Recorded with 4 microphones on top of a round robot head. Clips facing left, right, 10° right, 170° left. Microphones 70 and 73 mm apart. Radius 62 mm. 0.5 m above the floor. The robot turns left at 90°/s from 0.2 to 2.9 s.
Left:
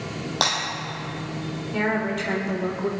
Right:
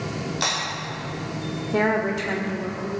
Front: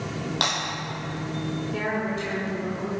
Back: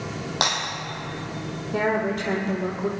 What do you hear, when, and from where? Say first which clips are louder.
0.4 s breaking glass: left 3 dB, back 3 dB; 105° left, 6 m; by 0.6 s 90° left, 6 m
1.7 s a woman speaking: right 3 dB, back 7 dB; 130° right, 1.5 m; by 2.9 s 125° left, 1.5 m